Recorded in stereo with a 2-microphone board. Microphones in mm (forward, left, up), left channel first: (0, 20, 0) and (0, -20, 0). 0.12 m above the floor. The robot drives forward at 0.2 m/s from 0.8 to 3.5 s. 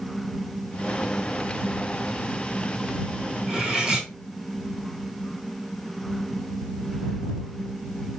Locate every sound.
3.5 s cutlery clinking: 10° right (ahead or behind), 1.8 m